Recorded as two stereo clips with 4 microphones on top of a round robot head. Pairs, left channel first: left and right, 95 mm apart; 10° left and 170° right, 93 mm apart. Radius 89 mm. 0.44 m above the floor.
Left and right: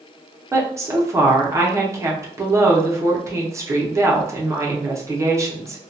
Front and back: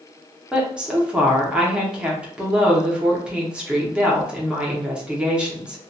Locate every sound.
0.5 s a woman speaking: 100° right, 0.8 m